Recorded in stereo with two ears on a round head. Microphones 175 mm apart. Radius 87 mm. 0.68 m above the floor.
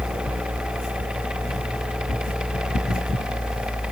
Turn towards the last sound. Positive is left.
No sound to turn to.